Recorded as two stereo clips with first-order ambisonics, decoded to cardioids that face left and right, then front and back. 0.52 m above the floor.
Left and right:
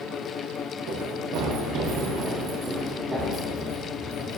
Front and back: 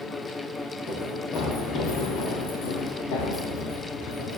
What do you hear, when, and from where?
0.9 s running footsteps: 65° right, 3.5 m; by 4.4 s 5° left, 4.5 m